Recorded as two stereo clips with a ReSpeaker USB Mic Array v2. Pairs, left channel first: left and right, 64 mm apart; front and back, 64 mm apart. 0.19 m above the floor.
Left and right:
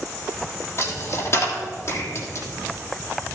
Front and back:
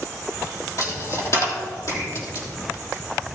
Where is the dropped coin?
40° left, 3 m.